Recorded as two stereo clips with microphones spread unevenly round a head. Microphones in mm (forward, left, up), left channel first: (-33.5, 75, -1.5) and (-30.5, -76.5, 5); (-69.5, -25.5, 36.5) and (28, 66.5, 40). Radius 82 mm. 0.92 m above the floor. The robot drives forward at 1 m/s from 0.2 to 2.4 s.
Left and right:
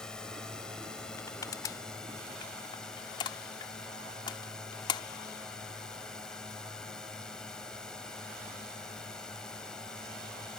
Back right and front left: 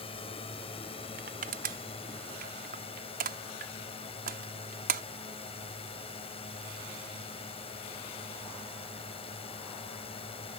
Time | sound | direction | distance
0.0 | a drone | 175° left | ?
1.2 | crushing | 20° left | ?